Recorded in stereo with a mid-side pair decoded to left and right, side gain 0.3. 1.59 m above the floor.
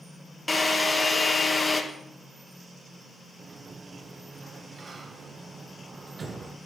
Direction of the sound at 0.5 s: 30° left.